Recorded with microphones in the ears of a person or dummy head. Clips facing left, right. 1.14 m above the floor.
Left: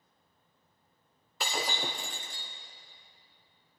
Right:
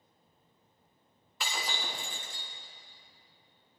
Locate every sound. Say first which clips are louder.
1.4 s breaking glass: left 4 dB; 35° left (ahead or behind), 1.3 m